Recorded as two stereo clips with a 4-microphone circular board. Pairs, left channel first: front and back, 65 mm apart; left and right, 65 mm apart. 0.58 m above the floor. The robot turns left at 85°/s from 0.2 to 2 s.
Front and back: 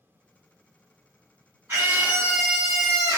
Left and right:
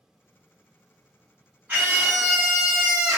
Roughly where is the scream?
Behind right.